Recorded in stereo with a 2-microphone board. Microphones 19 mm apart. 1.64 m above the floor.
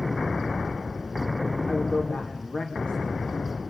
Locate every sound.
1.6 s a man speaking: 85° left, 3.5 m